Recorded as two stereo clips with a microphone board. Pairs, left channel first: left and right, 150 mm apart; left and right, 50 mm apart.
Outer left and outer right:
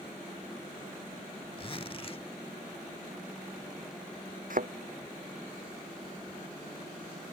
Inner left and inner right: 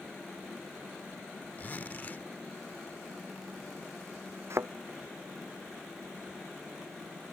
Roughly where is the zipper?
Left.